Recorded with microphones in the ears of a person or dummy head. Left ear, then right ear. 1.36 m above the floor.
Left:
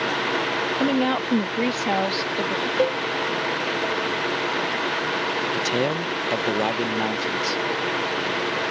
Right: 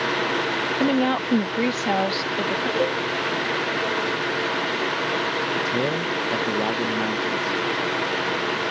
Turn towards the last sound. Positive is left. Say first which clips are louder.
# even
turn(degrees=55)  # may be behind; listen again after turning